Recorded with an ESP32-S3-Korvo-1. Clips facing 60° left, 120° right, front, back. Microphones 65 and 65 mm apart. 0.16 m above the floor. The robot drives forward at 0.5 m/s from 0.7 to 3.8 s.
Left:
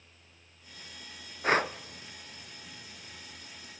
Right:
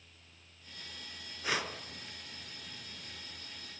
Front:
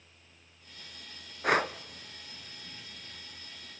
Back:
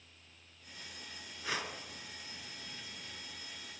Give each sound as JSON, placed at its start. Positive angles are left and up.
{"t": 1.4, "sound": "breathing", "azimuth_deg": 20, "distance_m": 0.8}